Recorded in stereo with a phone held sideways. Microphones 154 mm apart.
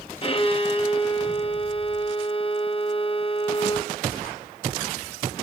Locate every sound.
0.2 s a violin: 35° left (ahead or behind), 0.7 m